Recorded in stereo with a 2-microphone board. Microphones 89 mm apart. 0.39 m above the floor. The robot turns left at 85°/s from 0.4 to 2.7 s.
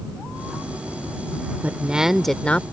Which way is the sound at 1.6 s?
20° right (ahead or behind).